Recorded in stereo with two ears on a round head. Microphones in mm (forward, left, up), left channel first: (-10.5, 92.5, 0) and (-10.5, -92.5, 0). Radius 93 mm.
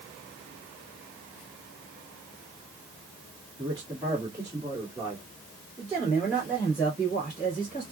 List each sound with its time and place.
3.6 s a man speaking: 20° right (ahead or behind), 1.7 m; by 7.9 s 5° right (ahead or behind), 4 m